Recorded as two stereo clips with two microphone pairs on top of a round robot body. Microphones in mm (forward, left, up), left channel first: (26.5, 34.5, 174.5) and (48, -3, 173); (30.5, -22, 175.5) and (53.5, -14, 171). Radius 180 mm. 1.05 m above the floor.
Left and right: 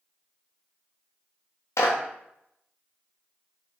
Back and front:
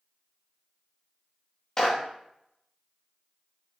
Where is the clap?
130° left, 1.1 m.